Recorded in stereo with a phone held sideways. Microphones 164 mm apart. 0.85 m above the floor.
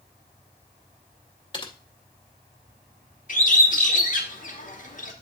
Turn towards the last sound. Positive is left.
turn(degrees=50)  # may be behind; listen again after turning